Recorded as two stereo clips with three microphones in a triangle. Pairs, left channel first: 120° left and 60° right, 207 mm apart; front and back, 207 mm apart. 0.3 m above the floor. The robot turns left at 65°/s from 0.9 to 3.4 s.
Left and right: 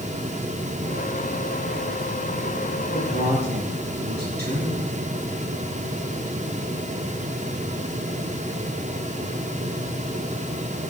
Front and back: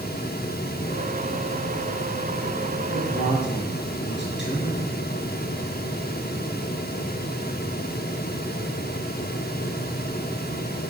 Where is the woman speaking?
5° left, 5 m; by 4.8 s 25° right, 5 m.